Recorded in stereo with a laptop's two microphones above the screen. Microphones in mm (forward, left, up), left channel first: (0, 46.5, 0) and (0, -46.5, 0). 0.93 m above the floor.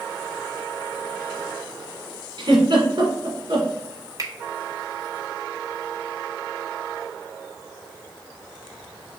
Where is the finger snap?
45° right (ahead or behind), 1.0 m.